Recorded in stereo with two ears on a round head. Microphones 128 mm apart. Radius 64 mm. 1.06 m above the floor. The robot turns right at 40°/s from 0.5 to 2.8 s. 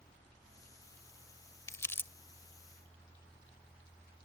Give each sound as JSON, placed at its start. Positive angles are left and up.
{"t": 1.7, "sound": "crumpling", "side_deg": 20}